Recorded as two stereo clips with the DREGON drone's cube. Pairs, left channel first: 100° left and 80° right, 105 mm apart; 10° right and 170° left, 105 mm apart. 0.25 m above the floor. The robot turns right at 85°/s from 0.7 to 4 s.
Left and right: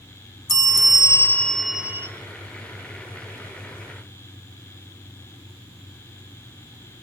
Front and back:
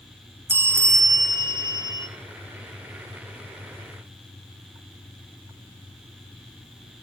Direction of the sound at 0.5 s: 110° left.